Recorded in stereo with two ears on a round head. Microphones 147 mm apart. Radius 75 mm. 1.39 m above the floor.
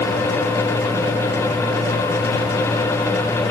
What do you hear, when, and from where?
Only background noise.